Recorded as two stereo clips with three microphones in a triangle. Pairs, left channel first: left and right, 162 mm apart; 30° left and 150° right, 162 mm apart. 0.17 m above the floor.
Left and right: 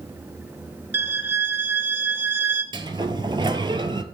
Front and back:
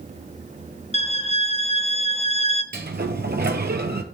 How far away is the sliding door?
About 0.7 m.